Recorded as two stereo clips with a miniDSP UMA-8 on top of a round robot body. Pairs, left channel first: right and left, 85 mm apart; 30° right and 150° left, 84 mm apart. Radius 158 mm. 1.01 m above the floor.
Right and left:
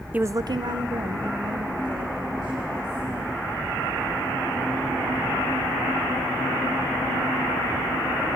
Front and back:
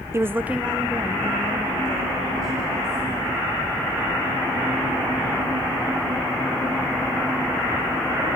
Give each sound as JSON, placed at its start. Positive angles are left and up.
{"t": 0.1, "sound": "a woman speaking", "azimuth_deg": 145, "distance_m": 0.5}